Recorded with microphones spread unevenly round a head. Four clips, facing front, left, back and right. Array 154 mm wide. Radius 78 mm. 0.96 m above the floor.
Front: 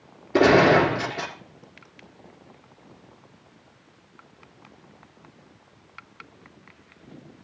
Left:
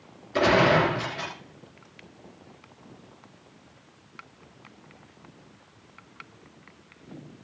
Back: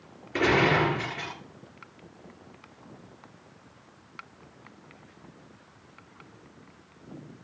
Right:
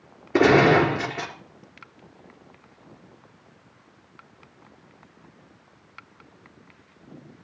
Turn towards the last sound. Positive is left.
turn(degrees=-55)